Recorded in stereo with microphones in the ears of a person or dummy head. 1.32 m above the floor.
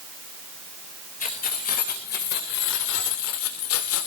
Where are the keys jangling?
45° left (ahead or behind), 4.5 m; by 4.1 s 75° left (ahead or behind), 2.5 m.